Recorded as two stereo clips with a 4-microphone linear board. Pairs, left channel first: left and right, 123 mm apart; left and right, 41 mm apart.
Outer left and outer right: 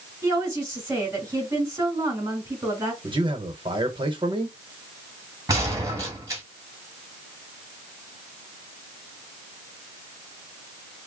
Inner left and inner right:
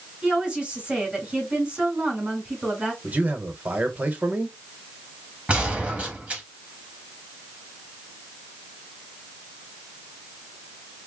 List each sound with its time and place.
0.2 s a woman speaking: 25° right (ahead or behind), 2.5 m
3.0 s a man speaking: 40° right (ahead or behind), 1.0 m
5.5 s a gunshot: 25° right (ahead or behind), 1.8 m